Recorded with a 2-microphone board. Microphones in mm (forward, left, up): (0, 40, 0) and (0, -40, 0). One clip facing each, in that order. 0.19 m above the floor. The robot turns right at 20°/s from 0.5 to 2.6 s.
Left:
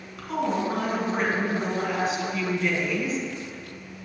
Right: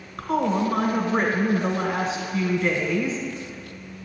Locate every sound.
0.2 s a woman speaking: 90° right, 1.3 m; by 3.2 s 45° right, 1.3 m